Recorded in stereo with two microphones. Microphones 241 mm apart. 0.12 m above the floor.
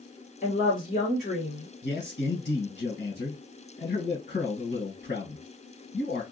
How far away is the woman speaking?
About 1.6 m.